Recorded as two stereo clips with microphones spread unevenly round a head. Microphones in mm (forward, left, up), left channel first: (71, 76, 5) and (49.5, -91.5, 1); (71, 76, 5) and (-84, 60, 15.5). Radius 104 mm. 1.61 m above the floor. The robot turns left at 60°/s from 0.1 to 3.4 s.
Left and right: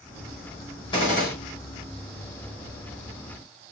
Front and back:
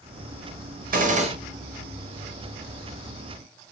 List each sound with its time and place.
0.9 s a gunshot: 155° left, 0.9 m; by 1.3 s 130° left, 0.9 m